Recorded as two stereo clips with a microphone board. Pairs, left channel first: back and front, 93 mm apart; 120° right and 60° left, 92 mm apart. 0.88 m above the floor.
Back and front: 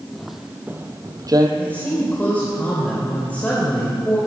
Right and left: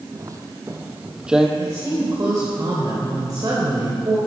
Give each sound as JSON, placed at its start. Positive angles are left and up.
{"t": 0.1, "sound": "footsteps", "azimuth_deg": 95, "distance_m": 1.3}
{"t": 1.6, "sound": "a woman speaking", "azimuth_deg": 110, "distance_m": 3.0}